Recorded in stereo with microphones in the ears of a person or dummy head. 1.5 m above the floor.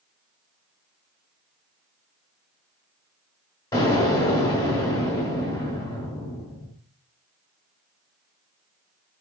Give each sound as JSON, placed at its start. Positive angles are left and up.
{"t": 3.7, "sound": "an explosion", "side_deg": 20, "distance_m": 2.0}